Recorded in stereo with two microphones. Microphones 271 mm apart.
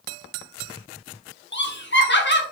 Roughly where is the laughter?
Left.